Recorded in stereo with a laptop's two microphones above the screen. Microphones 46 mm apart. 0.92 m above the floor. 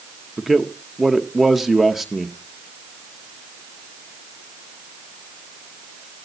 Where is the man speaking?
5° right (ahead or behind), 0.8 m.